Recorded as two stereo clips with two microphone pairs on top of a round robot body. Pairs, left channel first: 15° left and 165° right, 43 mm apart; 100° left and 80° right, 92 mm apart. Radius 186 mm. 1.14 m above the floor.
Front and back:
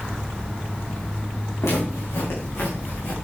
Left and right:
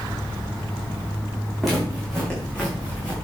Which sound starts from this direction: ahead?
Footsteps, at 1.6 s.